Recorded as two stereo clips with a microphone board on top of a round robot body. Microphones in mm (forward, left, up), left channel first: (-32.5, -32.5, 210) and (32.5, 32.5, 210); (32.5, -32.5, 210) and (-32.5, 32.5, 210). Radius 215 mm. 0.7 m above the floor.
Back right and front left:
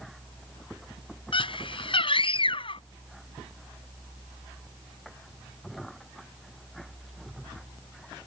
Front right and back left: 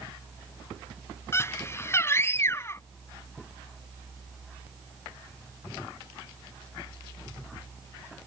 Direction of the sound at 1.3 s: 110° right.